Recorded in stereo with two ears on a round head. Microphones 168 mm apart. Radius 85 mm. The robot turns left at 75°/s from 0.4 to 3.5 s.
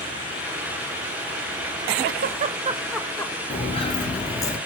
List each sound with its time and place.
2.0 s a giggle: 60° right (ahead or behind), 0.6 m; by 3.4 s 25° left (ahead or behind), 0.6 m
3.5 s footsteps: 35° left (ahead or behind), 1.3 m; by 4.6 s 15° left (ahead or behind), 1.4 m